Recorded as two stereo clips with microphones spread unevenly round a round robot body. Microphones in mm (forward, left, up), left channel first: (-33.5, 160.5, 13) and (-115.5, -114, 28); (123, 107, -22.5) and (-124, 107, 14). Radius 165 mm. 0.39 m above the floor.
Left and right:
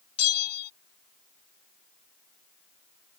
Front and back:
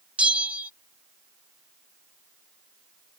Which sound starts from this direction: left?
A bell, at 0.2 s.